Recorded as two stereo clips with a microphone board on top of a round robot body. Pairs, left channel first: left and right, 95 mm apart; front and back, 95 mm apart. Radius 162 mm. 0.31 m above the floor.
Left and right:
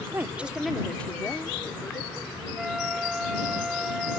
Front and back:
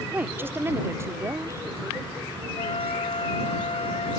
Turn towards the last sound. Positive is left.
turn(degrees=-5)